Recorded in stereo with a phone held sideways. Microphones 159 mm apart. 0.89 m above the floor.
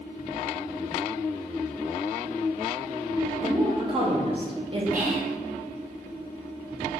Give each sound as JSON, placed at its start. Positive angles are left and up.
{"t": 3.4, "sound": "a woman speaking", "side_deg": -35, "distance_m": 0.7}
{"t": 4.9, "sound": "whispering", "side_deg": -60, "distance_m": 0.9}